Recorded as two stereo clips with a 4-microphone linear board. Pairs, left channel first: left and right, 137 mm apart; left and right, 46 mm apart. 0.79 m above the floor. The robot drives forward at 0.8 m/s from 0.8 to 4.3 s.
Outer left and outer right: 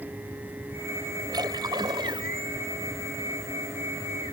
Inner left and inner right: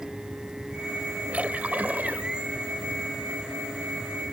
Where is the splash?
30° right (ahead or behind); by 2.3 s 40° right (ahead or behind).